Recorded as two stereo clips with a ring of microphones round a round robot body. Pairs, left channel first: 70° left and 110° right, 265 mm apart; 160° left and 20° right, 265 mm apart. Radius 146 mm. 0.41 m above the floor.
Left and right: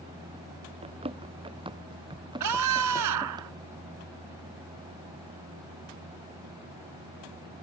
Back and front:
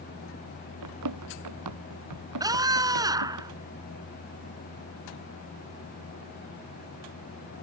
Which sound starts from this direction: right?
A scream, at 2.4 s.